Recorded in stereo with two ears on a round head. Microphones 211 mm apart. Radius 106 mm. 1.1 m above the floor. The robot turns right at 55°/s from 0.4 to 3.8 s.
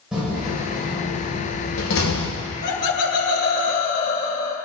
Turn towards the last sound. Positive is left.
turn(degrees=150)